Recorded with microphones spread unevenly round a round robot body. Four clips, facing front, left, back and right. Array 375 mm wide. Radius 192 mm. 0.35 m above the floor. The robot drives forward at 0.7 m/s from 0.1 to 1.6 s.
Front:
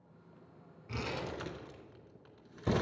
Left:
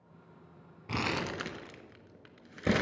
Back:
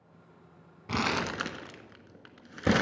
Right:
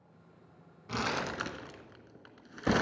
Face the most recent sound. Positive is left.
turn(degrees=165)